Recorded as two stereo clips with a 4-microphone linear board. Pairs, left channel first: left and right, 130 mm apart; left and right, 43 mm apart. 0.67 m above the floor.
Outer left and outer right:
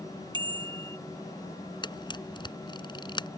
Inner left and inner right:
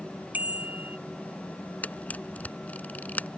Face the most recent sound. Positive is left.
turn(degrees=35)  # may be behind; listen again after turning